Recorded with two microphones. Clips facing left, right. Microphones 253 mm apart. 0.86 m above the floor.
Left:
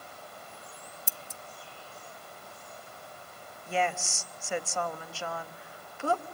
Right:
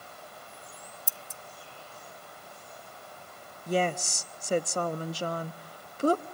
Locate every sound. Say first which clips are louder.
1.1 s scissors: left 1 dB; 70° left (ahead or behind), 0.7 m
3.7 s a woman speaking: right 4 dB; 40° right (ahead or behind), 0.7 m